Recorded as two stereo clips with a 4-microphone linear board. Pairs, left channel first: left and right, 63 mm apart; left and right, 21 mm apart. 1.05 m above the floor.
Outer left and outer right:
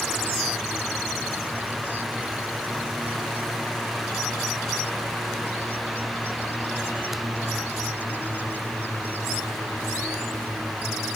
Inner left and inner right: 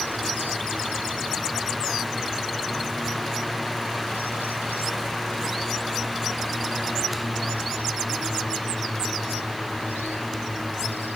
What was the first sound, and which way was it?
Only background noise.